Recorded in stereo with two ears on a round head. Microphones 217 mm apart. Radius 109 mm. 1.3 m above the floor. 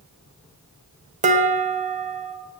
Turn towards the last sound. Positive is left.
turn(degrees=-30)  # may be behind; listen again after turning